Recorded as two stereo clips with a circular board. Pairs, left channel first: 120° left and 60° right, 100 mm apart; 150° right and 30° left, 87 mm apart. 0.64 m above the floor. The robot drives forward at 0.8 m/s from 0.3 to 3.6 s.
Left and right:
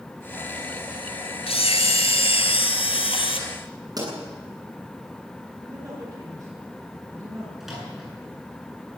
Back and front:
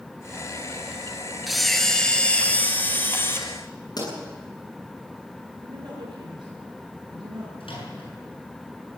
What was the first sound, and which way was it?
A camera shutter, 120° left.